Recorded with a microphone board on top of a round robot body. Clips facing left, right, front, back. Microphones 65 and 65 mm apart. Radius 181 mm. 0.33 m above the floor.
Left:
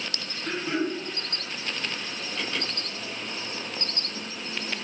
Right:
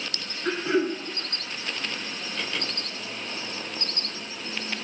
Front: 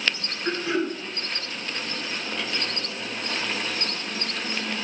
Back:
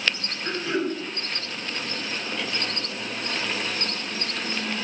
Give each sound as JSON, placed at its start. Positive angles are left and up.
{"t": 0.5, "sound": "throat clearing", "azimuth_deg": -70, "distance_m": 1.1}